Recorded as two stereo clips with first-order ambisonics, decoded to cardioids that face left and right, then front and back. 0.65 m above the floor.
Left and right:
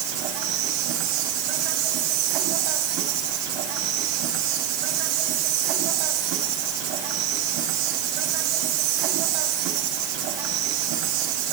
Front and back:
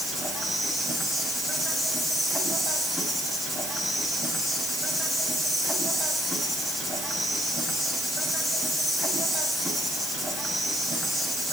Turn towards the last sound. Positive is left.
turn(degrees=-100)